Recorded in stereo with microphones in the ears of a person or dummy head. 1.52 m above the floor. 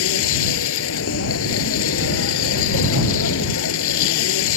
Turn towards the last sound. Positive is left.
turn(degrees=70)  # may be behind; listen again after turning